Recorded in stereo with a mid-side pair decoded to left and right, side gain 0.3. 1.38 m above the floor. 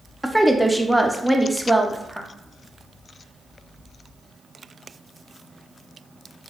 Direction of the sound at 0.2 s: 5° right.